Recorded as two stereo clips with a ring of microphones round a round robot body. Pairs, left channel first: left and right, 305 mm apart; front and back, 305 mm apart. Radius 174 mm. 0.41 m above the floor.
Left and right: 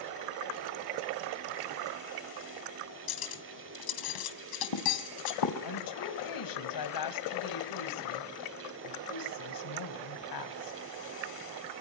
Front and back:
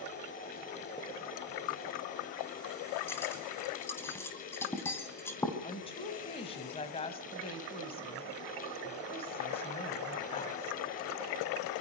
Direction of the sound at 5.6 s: 75° left.